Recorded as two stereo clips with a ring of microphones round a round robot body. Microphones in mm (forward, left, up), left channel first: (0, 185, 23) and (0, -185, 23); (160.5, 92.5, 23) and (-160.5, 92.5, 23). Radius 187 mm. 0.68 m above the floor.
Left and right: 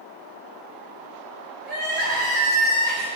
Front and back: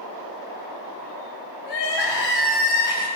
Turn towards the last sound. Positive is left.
turn(degrees=-25)